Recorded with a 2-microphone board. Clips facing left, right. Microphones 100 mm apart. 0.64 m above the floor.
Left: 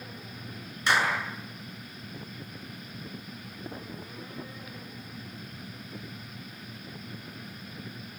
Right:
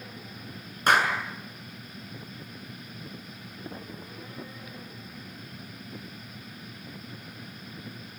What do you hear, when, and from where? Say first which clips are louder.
0.9 s a clap: right 3 dB; 50° right (ahead or behind), 7 m